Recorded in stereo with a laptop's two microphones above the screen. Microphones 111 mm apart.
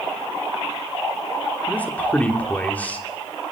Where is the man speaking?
15° left (ahead or behind), 3 m.